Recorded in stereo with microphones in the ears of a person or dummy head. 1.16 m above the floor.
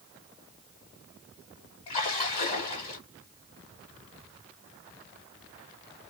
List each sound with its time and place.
1.9 s a splash: 30° left (ahead or behind), 1.7 m